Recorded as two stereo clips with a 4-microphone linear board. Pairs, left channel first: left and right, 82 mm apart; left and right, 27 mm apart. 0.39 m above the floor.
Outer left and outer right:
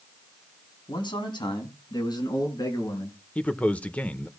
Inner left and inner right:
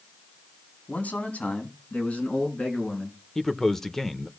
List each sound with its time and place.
0.9 s a man speaking: 70° left (ahead or behind), 3 m; by 3.2 s 50° left (ahead or behind), 5 m
3.4 s a man speaking: 15° left (ahead or behind), 0.8 m